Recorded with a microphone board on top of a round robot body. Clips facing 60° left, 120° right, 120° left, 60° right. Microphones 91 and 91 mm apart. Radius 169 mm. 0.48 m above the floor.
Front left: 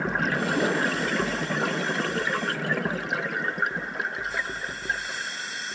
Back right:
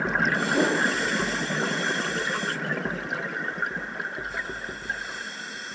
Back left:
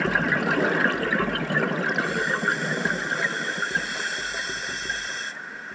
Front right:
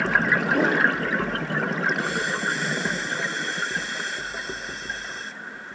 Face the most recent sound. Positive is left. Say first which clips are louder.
# back right 2 dB, front right 3 dB
turn(degrees=-85)